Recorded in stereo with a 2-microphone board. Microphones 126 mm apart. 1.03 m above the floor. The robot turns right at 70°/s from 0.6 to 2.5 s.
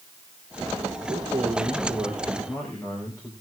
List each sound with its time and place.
1.1 s a man speaking: 80° right, 3.5 m; by 3.3 s 20° left, 3.5 m